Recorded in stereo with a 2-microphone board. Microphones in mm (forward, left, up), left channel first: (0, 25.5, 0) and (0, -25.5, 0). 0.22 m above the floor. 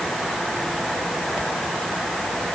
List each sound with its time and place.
Only background noise.